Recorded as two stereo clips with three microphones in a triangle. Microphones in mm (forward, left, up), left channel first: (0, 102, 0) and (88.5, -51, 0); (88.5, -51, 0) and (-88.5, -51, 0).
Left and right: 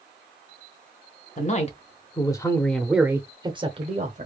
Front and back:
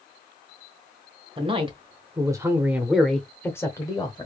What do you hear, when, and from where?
1.4 s a man speaking: 135° left, 1.1 m; by 4.3 s 55° right, 1.1 m